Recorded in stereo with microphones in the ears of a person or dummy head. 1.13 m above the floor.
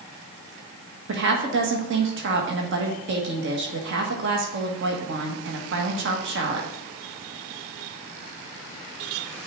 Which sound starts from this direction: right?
A woman speaking, at 1.1 s.